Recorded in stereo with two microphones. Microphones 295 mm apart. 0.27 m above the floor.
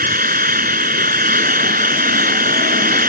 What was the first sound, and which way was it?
An engine running, 30° right (ahead or behind).